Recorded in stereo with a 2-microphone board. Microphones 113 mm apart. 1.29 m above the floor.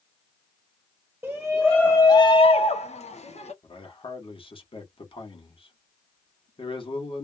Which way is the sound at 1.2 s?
10° right (ahead or behind).